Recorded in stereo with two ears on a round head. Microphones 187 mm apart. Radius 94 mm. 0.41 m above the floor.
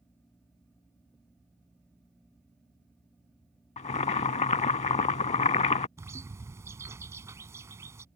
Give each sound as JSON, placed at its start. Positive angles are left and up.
{"t": 3.8, "sound": "boiling", "side_deg": 30}
{"t": 6.0, "sound": "a bird", "side_deg": -15}